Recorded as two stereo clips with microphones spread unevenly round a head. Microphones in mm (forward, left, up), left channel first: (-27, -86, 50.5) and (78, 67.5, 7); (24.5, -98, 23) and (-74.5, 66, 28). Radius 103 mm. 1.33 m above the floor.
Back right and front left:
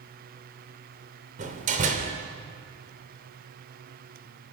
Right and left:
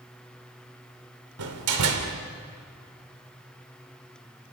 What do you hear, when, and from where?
1.4 s a door slam: 115° left, 3 m